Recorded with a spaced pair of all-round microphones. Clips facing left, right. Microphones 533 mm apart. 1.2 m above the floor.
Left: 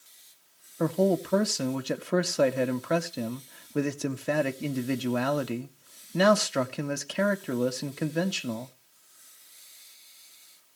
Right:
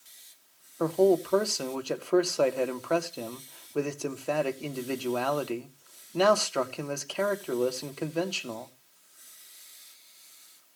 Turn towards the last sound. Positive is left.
turn(degrees=40)  # may be behind; listen again after turning